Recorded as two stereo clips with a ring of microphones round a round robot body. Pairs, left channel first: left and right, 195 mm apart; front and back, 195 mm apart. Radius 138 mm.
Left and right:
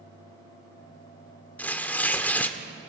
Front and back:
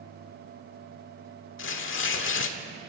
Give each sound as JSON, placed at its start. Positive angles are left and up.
{"t": 1.6, "sound": "tearing paper", "azimuth_deg": 10, "distance_m": 1.6}